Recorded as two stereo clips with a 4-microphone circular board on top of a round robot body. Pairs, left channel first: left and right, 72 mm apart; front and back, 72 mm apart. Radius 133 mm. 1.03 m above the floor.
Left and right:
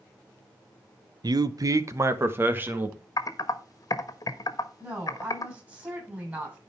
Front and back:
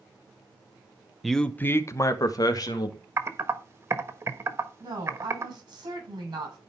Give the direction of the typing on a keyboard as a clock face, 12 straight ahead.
8 o'clock.